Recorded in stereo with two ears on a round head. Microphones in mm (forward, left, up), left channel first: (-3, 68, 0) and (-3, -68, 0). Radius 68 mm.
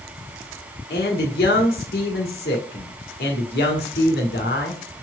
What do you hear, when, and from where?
0.9 s a man speaking: 70° left (ahead or behind), 1.7 m